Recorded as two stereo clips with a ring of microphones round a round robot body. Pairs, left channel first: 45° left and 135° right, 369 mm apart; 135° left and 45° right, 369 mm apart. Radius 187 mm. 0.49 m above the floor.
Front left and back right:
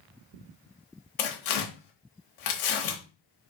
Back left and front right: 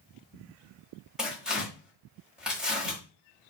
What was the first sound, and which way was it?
Tearing paper, 45° left.